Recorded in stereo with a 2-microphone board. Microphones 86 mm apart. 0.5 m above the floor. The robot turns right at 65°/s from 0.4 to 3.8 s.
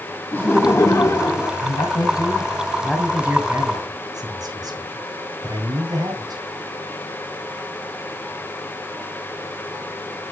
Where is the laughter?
40° left, 1.2 m; by 1.5 s 110° left, 1.2 m.